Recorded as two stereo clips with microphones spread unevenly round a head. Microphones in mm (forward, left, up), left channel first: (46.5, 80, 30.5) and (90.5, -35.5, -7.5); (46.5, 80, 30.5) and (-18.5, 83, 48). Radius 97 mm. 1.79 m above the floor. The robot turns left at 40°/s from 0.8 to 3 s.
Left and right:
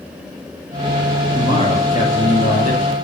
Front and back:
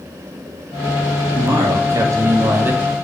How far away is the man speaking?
About 3 m.